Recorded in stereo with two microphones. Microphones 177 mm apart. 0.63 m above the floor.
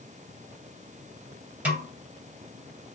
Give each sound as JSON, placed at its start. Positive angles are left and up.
{"t": 1.6, "sound": "a snare drum", "side_deg": -10, "distance_m": 2.5}